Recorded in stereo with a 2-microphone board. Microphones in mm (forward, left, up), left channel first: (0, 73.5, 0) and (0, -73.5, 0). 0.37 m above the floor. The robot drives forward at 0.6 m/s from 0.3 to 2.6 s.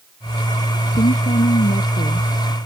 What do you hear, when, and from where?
1.0 s a woman speaking: 65° left (ahead or behind); by 2.3 s 70° left (ahead or behind)